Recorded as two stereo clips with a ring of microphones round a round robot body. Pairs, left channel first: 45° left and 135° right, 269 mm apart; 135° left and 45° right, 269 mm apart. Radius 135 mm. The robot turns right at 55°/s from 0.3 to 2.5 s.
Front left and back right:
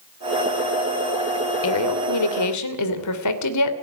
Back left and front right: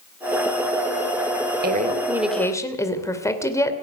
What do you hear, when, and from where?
1.6 s a woman speaking: 10° left, 2.5 m; by 3.7 s 55° left, 2.5 m